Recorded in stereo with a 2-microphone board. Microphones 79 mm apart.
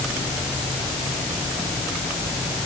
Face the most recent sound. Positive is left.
No sound to turn to.